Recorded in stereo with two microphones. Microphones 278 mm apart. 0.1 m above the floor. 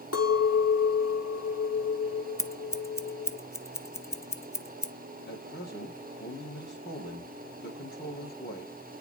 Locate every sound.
0.1 s a clink: 65° left (ahead or behind), 1.8 m
2.4 s scissors: 10° left (ahead or behind), 0.8 m
5.3 s a man speaking: 40° left (ahead or behind), 4 m